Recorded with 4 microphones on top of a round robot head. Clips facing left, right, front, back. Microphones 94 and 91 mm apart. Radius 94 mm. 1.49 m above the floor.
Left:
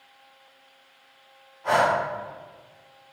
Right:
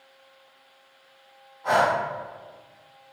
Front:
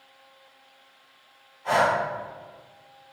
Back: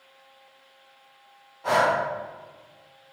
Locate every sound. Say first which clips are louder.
1.6 s breathing: even, even; 175° right, 1.0 m